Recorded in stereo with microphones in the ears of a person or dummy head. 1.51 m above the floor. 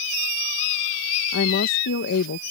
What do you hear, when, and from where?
1.3 s a woman speaking: 65° left (ahead or behind)